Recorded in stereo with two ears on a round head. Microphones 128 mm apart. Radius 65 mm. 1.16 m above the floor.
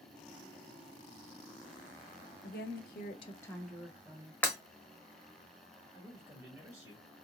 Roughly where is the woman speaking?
Left.